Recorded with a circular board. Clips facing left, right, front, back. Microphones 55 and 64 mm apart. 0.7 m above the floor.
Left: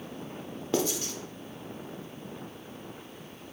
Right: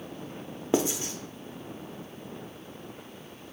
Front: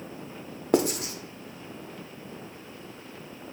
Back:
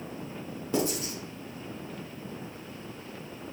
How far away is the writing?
About 0.5 m.